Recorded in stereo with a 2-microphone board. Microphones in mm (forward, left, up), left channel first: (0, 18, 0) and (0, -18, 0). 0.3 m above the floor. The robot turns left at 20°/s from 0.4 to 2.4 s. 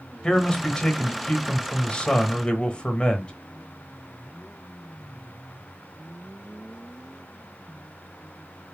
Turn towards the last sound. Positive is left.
turn(degrees=30)  # may be behind; listen again after turning